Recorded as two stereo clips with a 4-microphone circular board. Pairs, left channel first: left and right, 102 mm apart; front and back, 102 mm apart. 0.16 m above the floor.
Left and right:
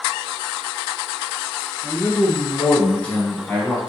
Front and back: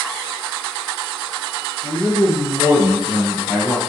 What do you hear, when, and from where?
1.8 s a man speaking: 170° left, 1.4 m; by 3.8 s 60° left, 1.1 m